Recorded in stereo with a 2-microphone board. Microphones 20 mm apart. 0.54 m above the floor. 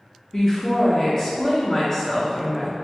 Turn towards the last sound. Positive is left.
turn(degrees=25)  # may be behind; listen again after turning